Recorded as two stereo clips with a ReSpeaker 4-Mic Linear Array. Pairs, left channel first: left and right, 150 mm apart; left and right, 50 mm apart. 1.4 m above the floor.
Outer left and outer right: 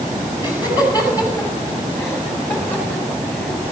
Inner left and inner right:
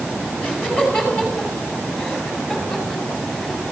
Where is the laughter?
30° left (ahead or behind), 8.5 m; by 3.6 s 10° left (ahead or behind), 8 m.